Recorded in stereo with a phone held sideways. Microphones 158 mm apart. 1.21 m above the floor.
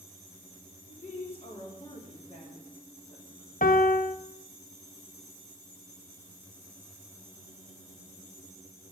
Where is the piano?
60° left (ahead or behind), 0.9 m.